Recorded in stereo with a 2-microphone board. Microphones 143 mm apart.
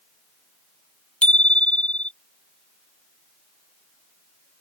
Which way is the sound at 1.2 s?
5° left (ahead or behind).